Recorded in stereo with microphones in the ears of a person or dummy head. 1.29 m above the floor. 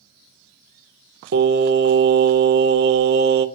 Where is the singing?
50° right (ahead or behind), 0.7 m.